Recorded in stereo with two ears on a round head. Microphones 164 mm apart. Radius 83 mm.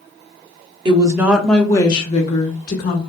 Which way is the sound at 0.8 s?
25° right (ahead or behind).